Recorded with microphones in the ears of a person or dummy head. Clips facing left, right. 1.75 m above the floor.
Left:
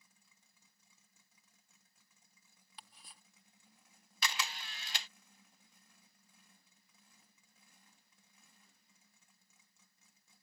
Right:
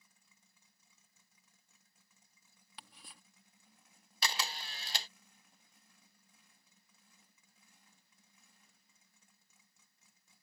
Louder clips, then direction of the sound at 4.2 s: Right 1 dB; 30° right (ahead or behind).